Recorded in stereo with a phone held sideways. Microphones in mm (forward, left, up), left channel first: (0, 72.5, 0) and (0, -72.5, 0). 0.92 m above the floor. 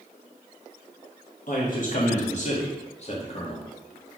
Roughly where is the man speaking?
Left.